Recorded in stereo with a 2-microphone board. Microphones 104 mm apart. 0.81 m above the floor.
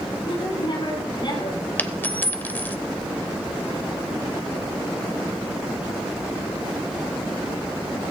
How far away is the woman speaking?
About 9.5 m.